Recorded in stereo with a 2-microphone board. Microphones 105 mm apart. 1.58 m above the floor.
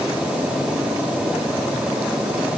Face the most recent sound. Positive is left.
No sound to turn to.